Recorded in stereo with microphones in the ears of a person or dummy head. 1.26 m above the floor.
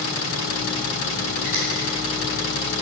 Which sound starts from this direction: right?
A finger snap, at 1.4 s.